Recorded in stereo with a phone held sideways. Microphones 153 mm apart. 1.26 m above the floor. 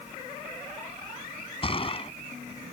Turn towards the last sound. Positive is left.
turn(degrees=35)  # may be behind; listen again after turning